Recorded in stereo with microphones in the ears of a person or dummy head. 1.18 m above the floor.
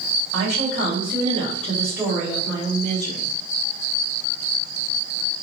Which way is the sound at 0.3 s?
60° right (ahead or behind).